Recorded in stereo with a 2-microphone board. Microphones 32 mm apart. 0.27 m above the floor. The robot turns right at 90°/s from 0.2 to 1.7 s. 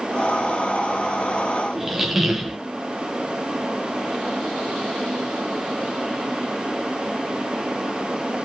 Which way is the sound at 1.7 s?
5° right (ahead or behind).